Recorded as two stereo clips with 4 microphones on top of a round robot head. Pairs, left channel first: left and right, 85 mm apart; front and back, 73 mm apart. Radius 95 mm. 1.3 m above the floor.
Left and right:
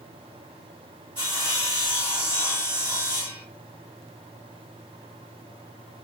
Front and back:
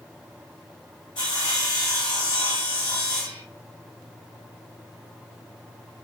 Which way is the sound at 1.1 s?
35° right.